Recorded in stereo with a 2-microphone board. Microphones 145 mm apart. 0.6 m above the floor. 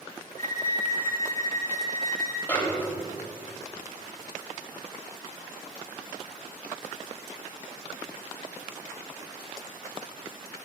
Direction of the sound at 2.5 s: 10° left (ahead or behind).